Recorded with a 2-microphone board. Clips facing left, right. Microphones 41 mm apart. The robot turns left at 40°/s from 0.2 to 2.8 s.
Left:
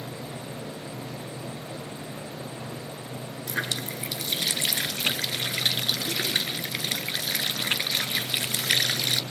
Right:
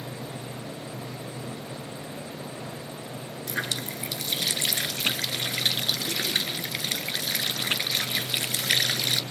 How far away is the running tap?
About 1.4 m.